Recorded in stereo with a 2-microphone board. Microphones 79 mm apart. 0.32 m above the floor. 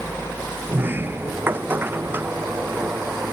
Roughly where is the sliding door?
Right.